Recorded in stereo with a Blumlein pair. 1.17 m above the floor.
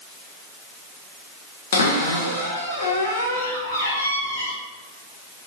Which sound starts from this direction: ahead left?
A cupboard door, at 1.7 s.